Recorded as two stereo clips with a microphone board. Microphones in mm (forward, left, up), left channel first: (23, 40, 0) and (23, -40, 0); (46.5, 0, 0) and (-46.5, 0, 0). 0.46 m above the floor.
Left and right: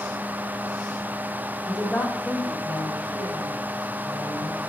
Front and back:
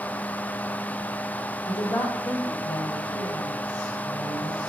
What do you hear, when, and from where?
1.7 s a woman speaking: 15° right, 1.8 m; by 4.6 s 30° left, 5 m